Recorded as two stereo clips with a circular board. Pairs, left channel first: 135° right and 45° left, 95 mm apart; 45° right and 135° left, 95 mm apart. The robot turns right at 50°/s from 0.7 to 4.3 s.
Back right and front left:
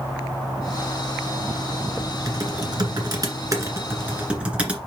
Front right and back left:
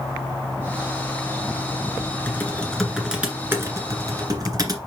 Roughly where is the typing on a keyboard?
Ahead.